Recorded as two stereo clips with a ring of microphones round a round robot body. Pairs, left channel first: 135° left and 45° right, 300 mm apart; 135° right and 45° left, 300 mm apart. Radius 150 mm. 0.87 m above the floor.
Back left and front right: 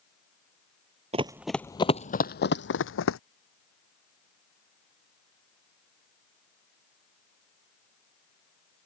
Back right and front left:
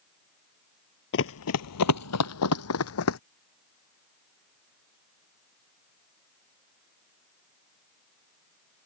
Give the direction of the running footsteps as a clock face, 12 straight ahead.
4 o'clock.